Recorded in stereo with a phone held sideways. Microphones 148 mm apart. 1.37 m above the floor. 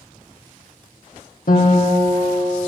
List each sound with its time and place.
1.5 s a guitar: 65° left (ahead or behind), 1.6 m